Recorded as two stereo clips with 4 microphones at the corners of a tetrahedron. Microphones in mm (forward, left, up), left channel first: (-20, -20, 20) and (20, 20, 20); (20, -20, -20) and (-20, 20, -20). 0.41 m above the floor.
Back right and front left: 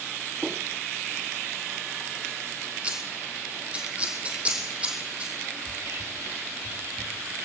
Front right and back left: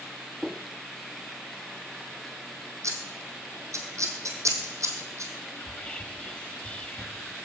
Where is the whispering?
20° left, 1.6 m.